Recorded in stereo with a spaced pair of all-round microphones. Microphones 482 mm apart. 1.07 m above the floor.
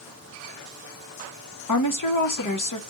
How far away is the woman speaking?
About 0.9 m.